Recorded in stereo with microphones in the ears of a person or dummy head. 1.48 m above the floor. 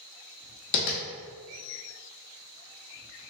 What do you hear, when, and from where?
0.7 s tapping: 30° left (ahead or behind), 0.6 m